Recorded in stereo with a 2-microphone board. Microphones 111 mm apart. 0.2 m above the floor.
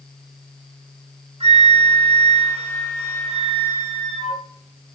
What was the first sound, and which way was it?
A flute, 75° right (ahead or behind).